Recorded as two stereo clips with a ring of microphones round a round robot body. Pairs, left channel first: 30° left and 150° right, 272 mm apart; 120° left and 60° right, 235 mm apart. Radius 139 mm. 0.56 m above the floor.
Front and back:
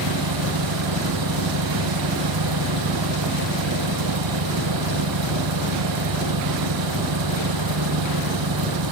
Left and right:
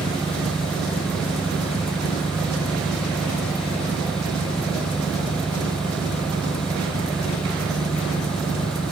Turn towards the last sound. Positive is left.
turn(degrees=-150)